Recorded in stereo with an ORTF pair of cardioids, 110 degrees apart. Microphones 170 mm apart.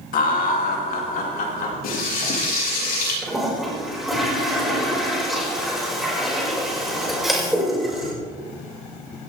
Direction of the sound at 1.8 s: 70° left.